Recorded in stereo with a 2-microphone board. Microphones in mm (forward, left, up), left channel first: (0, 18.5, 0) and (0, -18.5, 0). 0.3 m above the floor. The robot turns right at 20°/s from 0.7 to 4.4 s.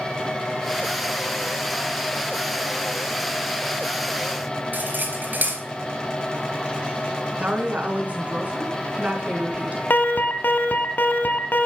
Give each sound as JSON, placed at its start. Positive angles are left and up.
{"t": 4.7, "sound": "cutlery clinking", "side_deg": -55, "distance_m": 3.0}
{"t": 7.4, "sound": "a woman speaking", "side_deg": -40, "distance_m": 3.5}
{"t": 9.9, "sound": "an alarm", "side_deg": 55, "distance_m": 1.3}